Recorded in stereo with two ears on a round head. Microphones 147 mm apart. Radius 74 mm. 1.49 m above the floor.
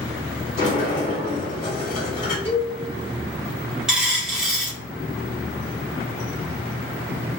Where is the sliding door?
50° left (ahead or behind), 1.5 m.